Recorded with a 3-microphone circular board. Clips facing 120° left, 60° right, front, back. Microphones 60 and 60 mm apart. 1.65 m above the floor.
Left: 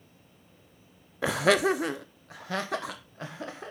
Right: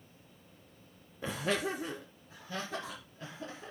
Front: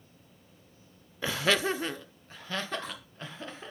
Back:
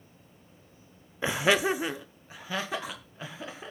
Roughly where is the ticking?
No ticking in this recording.